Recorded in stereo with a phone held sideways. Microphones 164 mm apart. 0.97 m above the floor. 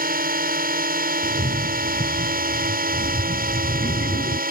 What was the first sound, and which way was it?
A drone, 55° right (ahead or behind).